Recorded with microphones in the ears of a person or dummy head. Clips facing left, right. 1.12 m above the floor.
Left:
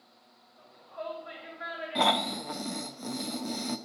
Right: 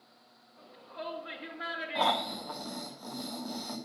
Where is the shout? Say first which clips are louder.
Left 2 dB; 65° right (ahead or behind), 2 m.